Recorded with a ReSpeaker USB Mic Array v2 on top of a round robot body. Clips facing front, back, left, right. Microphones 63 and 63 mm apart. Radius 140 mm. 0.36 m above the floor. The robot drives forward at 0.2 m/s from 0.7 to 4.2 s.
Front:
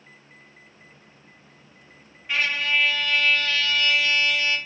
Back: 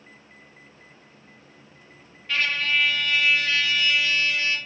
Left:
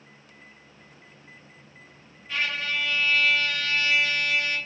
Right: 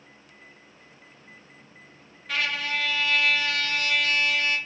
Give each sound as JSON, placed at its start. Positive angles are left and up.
{"t": 2.3, "sound": "a trumpet", "azimuth_deg": -75, "distance_m": 0.5}